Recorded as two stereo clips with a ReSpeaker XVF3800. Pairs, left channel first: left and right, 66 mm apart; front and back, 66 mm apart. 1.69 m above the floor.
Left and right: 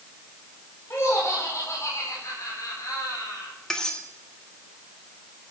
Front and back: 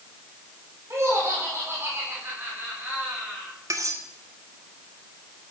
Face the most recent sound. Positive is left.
turn(degrees=165)